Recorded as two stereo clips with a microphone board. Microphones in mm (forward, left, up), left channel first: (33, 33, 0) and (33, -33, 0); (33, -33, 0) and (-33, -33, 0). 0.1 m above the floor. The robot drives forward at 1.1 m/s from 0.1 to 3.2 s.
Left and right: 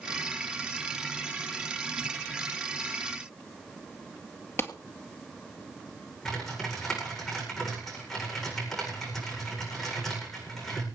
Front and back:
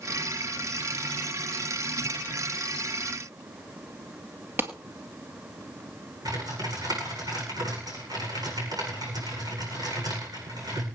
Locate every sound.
4.6 s a clap: 135° left, 1.5 m
6.2 s typing on a keyboard: 175° left, 8 m